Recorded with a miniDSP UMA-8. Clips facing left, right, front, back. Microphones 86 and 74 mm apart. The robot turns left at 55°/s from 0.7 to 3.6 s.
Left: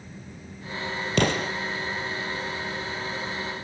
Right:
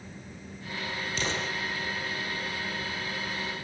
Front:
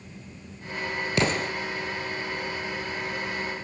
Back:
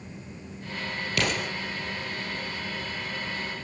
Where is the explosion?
65° left, 3.5 m; by 1.5 s 45° left, 3.5 m.